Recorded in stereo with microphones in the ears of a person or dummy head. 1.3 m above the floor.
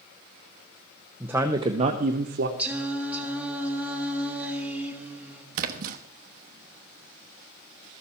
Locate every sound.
1.2 s a man speaking: 10° right (ahead or behind), 0.8 m; by 2.5 s 60° right (ahead or behind), 1.1 m
2.6 s singing: centre (ahead or behind), 1.8 m
5.5 s a splash: 50° right (ahead or behind), 1.0 m